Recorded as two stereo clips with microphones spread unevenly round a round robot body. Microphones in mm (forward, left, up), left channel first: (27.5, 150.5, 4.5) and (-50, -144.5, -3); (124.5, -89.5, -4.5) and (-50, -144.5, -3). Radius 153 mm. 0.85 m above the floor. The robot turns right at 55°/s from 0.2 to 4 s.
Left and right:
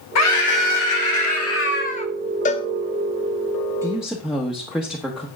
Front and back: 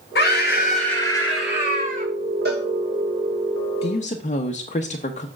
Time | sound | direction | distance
0.1 | a scream | 45° left | 1.4 m
2.5 | a cowbell | 140° left | 0.6 m
3.8 | a woman speaking | 30° right | 0.9 m